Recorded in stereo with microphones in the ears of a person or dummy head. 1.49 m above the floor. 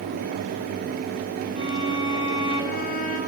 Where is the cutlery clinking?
I don't hear cutlery clinking.